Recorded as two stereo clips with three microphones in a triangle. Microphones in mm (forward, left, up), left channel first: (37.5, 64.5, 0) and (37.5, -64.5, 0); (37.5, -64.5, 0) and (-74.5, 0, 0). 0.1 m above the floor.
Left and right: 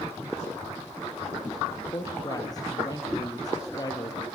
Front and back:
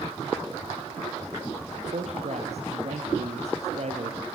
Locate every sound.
1.9 s a man speaking: 145° left, 3 m